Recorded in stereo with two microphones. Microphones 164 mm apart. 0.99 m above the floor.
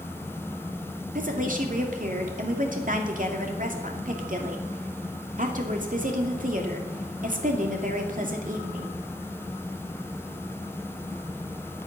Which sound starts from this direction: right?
A woman speaking, at 1.1 s.